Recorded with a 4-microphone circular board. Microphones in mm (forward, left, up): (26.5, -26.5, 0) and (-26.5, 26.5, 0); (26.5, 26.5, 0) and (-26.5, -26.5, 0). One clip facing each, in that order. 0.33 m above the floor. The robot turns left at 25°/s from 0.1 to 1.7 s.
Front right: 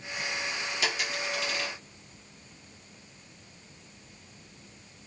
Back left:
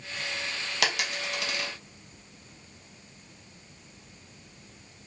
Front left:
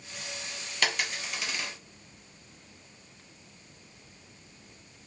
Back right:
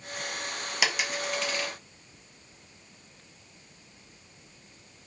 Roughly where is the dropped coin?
Behind left.